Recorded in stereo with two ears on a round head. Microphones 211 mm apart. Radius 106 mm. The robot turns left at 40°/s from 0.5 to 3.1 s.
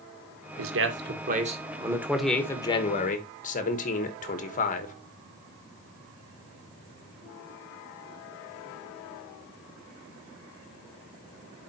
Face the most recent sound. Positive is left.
turn(degrees=145)